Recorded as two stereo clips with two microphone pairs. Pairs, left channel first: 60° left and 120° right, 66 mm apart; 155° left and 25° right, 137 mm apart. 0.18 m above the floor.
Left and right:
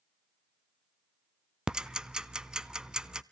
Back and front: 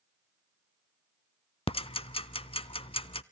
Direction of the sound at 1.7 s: 175° left.